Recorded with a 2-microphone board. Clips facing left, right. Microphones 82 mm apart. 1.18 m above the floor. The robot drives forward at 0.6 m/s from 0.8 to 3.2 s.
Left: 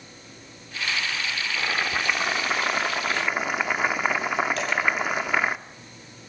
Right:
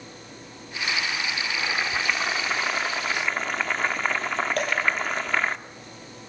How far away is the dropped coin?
About 7 m.